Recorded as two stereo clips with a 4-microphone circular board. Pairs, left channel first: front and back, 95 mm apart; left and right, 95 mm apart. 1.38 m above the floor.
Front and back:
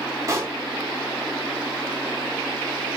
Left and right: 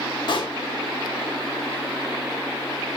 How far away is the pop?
About 1.2 m.